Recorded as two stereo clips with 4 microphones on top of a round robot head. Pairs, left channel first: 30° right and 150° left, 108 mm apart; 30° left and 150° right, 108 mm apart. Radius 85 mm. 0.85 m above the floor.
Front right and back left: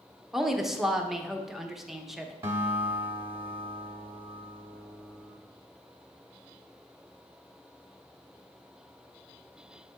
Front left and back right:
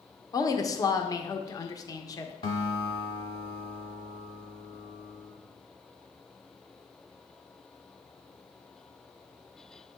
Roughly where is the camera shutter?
No camera shutter in this recording.